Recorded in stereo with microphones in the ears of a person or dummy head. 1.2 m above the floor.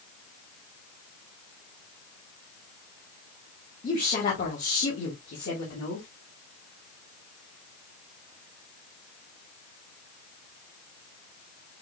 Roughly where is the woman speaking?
Left.